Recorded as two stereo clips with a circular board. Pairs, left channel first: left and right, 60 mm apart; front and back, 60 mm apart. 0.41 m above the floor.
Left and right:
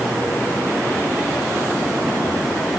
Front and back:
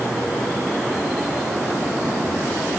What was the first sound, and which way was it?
Only background noise.